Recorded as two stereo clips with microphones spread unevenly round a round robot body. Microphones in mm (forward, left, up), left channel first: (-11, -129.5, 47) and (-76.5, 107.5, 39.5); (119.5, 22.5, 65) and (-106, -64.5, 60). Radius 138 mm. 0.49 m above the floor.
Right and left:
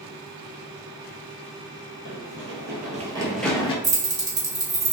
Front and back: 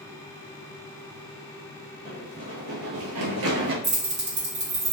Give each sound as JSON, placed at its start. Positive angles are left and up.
{"t": 2.0, "sound": "running footsteps", "azimuth_deg": 135, "distance_m": 1.2}
{"t": 3.8, "sound": "keys jangling", "azimuth_deg": 165, "distance_m": 1.6}